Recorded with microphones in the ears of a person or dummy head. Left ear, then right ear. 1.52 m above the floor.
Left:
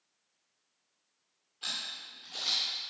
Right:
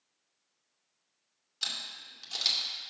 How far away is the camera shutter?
About 2 m.